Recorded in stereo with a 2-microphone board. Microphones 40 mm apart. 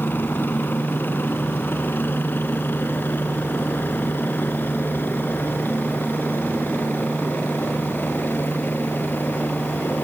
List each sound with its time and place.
0.0 s a helicopter: 55° left (ahead or behind); by 10.1 s 50° left (ahead or behind)